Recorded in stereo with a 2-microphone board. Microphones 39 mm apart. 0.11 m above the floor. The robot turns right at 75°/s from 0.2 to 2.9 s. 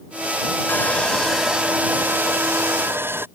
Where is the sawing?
130° left; by 3.3 s 60° right.